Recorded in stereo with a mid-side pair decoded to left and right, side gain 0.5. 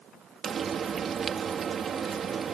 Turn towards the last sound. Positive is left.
turn(degrees=-50)